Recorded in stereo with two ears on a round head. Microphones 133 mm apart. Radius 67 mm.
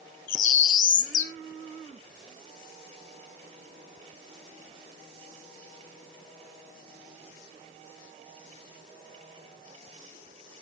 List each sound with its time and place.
0.3 s a bird: 60° left (ahead or behind), 1.1 m